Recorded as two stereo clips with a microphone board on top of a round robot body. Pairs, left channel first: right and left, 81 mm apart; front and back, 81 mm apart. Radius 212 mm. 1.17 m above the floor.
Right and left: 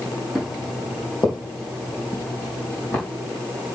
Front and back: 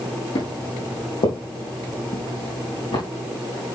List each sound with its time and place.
0.3 s footsteps: straight ahead, 3.5 m; by 3.0 s 20° right, 4 m